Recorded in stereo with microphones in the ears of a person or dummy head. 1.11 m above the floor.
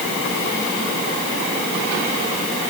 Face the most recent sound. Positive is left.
No sound to turn to.